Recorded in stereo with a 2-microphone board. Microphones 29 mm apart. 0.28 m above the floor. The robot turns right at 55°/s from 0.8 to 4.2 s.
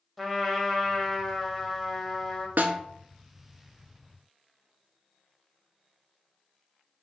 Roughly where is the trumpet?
Centre.